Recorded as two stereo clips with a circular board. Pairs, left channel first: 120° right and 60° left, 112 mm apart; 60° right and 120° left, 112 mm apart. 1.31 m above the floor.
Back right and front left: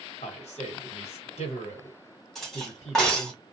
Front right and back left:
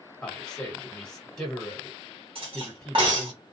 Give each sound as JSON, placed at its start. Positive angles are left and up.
{"t": 0.2, "sound": "a man speaking", "azimuth_deg": -145, "distance_m": 1.2}
{"t": 2.4, "sound": "cutlery clinking", "azimuth_deg": 155, "distance_m": 1.1}